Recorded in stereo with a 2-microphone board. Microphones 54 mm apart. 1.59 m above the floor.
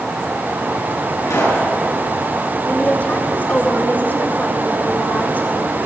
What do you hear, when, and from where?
1.2 s a pop: 80° left, 9 m
2.6 s a woman speaking: 30° left (ahead or behind), 4 m